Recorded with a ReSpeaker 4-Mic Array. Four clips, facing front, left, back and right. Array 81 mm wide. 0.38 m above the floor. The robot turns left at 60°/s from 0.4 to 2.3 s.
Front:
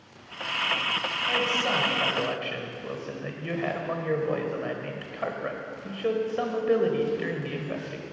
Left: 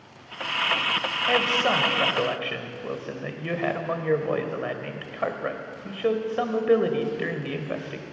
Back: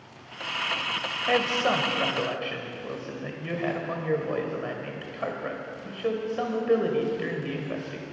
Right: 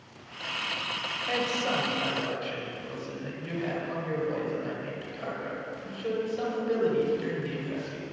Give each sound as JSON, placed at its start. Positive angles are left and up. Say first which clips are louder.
{"t": 1.3, "sound": "a man speaking", "louder": "left 6 dB, back 4 dB", "azimuth_deg": 150, "distance_m": 1.4}